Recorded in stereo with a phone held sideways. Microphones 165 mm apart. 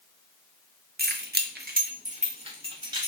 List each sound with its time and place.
1.0 s keys jangling: 70° right (ahead or behind), 0.6 m; by 3.1 s 25° right (ahead or behind), 1.2 m